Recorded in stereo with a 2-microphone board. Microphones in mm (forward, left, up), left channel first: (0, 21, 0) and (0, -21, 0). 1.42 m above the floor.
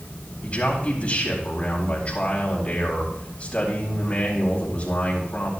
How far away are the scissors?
I don't hear scissors.